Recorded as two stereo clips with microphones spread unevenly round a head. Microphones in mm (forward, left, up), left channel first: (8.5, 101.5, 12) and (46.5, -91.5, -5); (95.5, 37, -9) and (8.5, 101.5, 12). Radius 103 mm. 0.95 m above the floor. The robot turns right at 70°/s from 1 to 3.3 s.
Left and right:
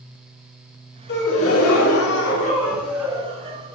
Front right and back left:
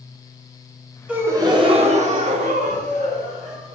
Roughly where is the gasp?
Ahead left.